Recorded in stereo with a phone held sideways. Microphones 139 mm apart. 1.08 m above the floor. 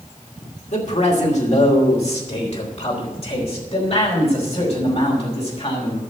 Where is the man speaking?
55° left (ahead or behind), 2.5 m; by 6.0 s 45° left (ahead or behind), 6 m.